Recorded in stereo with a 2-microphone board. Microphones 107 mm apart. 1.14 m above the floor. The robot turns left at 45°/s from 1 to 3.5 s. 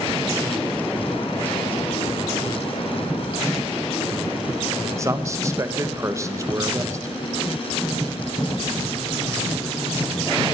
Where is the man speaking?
25° right (ahead or behind), 1.0 m.